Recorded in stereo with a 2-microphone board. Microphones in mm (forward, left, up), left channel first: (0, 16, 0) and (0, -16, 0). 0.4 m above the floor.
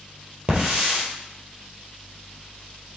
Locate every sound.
0.5 s a hiss: 40° right (ahead or behind), 3.5 m